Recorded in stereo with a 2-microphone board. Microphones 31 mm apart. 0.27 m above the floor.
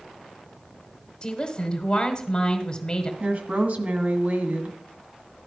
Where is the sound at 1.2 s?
35° left (ahead or behind), 1.7 m.